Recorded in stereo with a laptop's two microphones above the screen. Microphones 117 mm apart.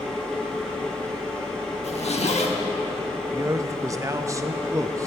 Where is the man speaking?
25° right (ahead or behind), 0.6 m.